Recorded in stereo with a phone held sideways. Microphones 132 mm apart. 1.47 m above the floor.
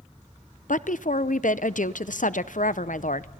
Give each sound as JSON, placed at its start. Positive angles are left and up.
{"t": 0.7, "sound": "a woman speaking", "side_deg": 75, "distance_m": 0.6}